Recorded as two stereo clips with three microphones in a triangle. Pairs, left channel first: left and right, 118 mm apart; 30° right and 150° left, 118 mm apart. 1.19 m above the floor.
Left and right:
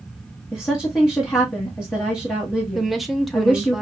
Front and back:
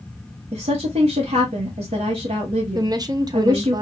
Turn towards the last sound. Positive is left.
turn(degrees=-175)